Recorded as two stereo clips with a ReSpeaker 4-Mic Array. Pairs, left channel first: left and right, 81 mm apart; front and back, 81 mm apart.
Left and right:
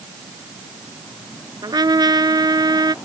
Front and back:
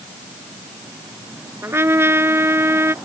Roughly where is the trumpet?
Behind right.